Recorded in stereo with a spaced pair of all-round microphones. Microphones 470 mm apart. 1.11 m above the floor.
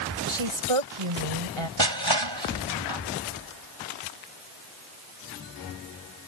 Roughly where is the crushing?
Right.